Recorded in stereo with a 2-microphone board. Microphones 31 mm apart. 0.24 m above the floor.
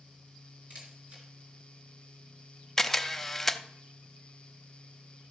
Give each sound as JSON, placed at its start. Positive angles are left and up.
{"t": 0.7, "sound": "a camera shutter", "side_deg": -55, "distance_m": 4.0}
{"t": 2.8, "sound": "a camera shutter", "side_deg": 10, "distance_m": 0.6}